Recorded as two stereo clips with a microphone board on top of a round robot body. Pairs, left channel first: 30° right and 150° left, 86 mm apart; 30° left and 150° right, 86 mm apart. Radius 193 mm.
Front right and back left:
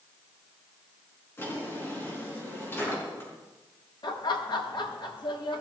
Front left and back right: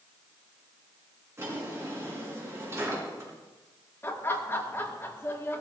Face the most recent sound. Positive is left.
turn(degrees=-30)